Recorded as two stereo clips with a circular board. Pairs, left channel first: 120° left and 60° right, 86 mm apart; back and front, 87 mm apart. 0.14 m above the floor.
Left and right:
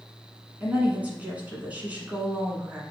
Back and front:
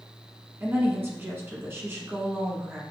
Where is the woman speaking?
10° right, 1.3 m.